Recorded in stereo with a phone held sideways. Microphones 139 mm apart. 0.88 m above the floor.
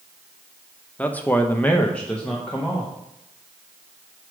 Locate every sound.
1.0 s a man speaking: 10° left (ahead or behind), 0.7 m; by 2.9 s 5° left (ahead or behind), 1.4 m